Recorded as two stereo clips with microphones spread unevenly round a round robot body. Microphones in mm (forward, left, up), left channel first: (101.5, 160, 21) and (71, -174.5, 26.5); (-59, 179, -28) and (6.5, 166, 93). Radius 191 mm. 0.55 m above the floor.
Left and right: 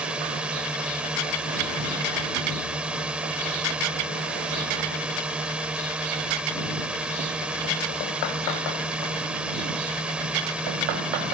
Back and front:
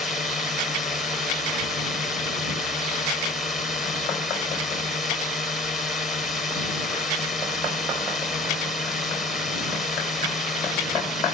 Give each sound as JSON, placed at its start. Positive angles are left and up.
{"t": 0.0, "sound": "a drone", "azimuth_deg": 180}